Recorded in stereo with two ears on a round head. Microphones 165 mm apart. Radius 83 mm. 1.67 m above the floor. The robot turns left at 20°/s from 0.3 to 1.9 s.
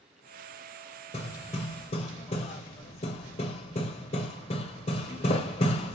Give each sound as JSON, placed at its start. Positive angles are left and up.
{"t": 1.1, "sound": "hammering", "side_deg": 35, "distance_m": 1.6}